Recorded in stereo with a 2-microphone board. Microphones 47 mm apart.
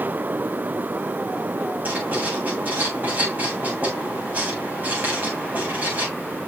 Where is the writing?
35° right (ahead or behind), 7.5 m.